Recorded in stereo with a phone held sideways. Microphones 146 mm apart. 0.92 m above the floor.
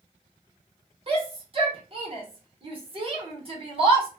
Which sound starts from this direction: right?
A shout, at 1.1 s.